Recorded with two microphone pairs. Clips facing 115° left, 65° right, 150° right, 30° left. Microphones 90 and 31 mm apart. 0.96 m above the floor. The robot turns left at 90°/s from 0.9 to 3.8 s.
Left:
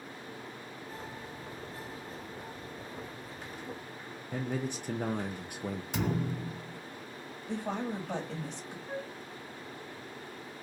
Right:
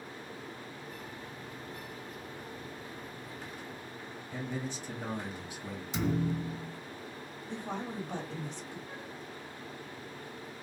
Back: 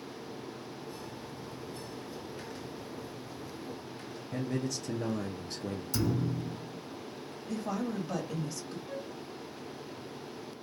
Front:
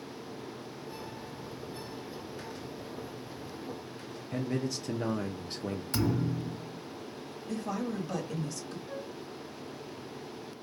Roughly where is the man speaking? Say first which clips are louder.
Left 4 dB, front 1 dB; left.